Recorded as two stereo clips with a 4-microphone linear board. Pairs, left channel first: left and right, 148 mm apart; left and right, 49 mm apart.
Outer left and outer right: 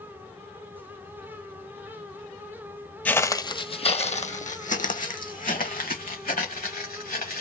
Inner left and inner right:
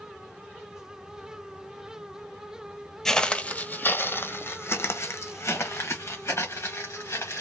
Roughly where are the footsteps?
Centre.